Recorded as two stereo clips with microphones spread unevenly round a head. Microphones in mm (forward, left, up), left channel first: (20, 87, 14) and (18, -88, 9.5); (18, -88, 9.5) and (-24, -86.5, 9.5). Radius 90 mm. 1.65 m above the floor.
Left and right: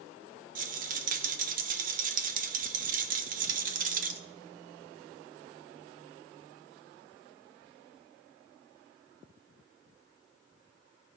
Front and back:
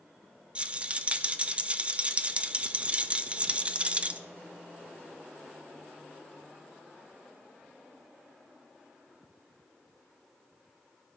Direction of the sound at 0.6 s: 125° right.